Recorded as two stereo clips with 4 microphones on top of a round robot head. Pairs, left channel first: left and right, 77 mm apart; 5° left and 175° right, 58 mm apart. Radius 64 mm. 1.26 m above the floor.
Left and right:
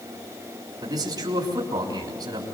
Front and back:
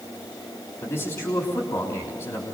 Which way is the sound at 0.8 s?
55° right.